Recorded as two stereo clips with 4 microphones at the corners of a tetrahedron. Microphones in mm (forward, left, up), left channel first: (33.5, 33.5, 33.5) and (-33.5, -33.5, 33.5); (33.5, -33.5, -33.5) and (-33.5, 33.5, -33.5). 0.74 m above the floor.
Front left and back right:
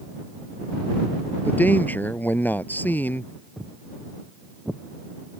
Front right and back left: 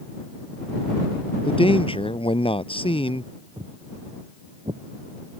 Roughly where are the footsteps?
Behind left.